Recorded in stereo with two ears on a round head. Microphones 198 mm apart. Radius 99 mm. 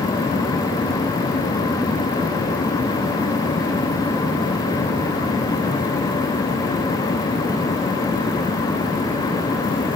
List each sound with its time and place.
Only background noise.